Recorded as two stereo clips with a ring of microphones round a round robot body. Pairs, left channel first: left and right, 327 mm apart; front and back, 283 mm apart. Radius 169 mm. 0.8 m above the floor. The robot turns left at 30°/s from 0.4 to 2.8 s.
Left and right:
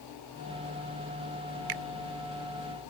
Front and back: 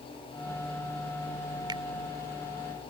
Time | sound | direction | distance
1.7 | a finger snap | 105° right | ?